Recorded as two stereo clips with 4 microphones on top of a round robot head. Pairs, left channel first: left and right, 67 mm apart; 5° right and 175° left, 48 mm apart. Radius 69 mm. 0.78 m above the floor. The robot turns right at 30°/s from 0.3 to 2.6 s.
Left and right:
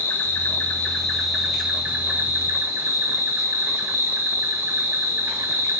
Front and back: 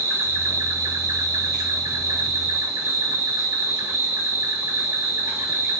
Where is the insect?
150° left, 0.7 m; by 5.8 s 145° right, 0.7 m.